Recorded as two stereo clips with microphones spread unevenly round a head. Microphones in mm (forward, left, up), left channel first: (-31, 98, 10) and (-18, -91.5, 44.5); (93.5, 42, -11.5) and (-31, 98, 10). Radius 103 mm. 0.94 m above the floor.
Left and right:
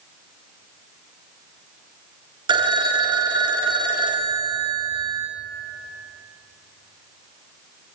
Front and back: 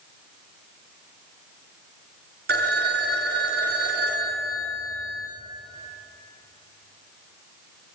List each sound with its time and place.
2.5 s a phone ringing: 155° right, 0.7 m